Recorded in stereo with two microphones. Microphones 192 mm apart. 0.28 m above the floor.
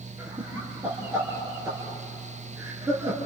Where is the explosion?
I don't hear an explosion.